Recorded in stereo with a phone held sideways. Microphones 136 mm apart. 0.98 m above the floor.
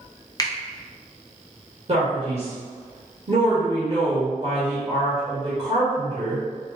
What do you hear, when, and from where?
0.4 s a finger snap: 25° left (ahead or behind), 0.7 m
1.9 s a man speaking: 50° right (ahead or behind), 1.8 m